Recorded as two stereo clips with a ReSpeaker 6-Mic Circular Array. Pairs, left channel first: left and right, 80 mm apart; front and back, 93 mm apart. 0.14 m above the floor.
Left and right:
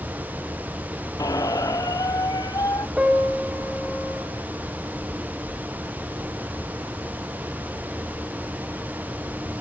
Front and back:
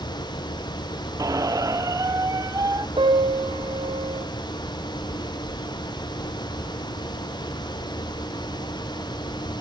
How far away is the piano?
About 5 m.